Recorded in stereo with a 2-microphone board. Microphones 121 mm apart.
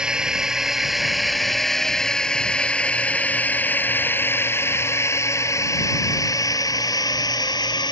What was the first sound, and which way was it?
A drone, 5° right (ahead or behind).